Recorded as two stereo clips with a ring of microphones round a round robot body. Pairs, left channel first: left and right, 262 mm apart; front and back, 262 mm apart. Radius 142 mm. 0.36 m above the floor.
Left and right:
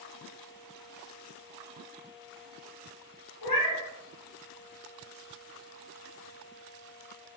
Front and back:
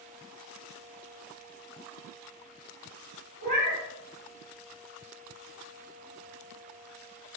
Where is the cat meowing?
125° left, 1.1 m.